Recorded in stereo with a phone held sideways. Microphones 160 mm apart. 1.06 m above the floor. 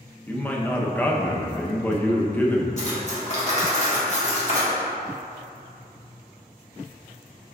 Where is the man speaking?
10° left (ahead or behind), 0.6 m.